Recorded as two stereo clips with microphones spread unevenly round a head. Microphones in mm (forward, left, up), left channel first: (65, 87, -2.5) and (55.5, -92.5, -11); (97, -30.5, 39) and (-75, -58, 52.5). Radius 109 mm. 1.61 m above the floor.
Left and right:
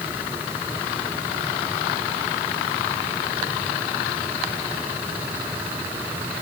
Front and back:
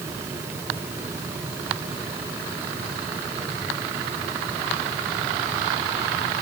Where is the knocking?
No knocking in this recording.